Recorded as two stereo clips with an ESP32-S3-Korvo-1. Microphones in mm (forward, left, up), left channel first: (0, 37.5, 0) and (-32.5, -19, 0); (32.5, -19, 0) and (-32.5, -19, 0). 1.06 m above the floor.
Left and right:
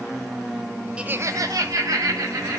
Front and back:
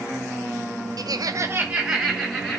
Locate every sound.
1.0 s laughter: 165° left, 0.6 m; by 2.6 s 90° right, 1.6 m